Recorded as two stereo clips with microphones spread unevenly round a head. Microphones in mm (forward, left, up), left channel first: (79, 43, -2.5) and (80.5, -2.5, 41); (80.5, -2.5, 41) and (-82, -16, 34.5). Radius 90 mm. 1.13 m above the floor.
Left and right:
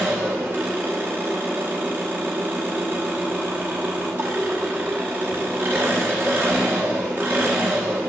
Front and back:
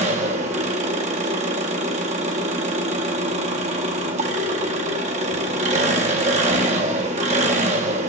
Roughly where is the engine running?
Behind right.